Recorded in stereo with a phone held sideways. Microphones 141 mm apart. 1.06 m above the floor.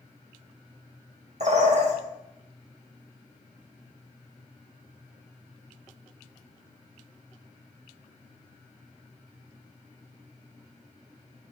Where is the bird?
55° right (ahead or behind), 1.5 m.